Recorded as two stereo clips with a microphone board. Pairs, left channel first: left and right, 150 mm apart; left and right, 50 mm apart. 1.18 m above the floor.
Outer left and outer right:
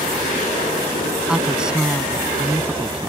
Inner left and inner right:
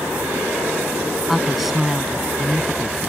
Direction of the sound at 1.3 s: 5° right (ahead or behind).